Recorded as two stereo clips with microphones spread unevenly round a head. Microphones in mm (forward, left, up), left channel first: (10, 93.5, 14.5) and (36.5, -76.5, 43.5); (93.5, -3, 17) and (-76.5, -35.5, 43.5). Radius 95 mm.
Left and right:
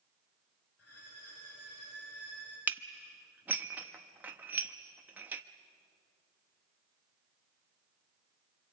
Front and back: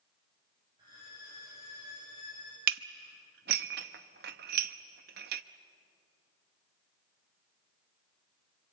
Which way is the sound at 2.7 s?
155° right.